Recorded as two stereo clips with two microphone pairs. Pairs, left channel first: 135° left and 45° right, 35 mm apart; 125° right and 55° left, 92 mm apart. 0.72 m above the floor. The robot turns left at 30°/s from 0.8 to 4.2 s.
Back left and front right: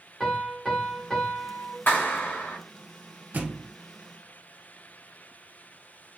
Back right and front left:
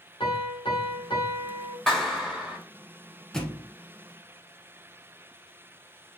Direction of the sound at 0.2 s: 145° right.